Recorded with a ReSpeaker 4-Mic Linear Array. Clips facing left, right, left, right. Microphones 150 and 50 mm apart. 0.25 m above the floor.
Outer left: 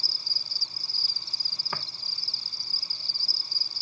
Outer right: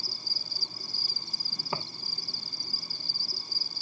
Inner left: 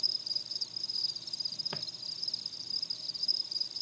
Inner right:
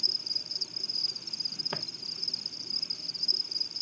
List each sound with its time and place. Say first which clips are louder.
0.0 s an insect: outer right 5 dB, inner right 3 dB; 50° right (ahead or behind)
1.7 s footsteps: outer right 3 dB, inner right 6 dB; 20° right (ahead or behind)